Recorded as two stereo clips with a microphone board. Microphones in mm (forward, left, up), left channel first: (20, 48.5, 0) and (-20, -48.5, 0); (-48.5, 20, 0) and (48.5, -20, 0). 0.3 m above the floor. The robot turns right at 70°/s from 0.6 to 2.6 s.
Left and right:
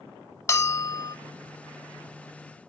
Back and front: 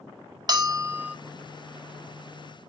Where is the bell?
15° left, 0.5 m; by 1.2 s 55° left, 0.5 m.